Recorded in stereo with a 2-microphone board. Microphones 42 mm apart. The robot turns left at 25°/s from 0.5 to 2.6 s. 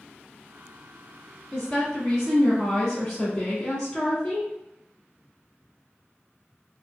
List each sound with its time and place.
1.5 s a woman speaking: 5° left (ahead or behind), 1.1 m; by 4.5 s 15° left (ahead or behind), 1.1 m